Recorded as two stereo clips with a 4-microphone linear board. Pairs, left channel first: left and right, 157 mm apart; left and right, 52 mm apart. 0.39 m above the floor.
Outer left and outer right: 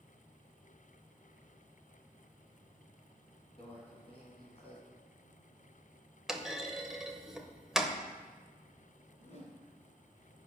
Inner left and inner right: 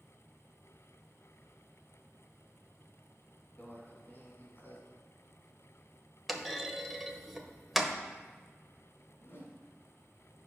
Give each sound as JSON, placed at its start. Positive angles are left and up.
{"t": 3.6, "sound": "a microwave", "side_deg": 40, "distance_m": 2.5}
{"t": 6.3, "sound": "a clunk", "side_deg": -5, "distance_m": 0.9}
{"t": 9.2, "sound": "a whoosh", "side_deg": 55, "distance_m": 2.5}